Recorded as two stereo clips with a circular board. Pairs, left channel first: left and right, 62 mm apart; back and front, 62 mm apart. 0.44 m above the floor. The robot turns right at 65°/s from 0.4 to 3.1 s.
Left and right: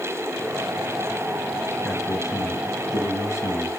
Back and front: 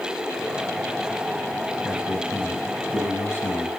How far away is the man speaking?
About 3 m.